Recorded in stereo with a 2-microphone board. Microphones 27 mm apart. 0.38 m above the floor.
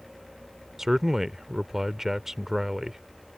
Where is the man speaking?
15° right (ahead or behind).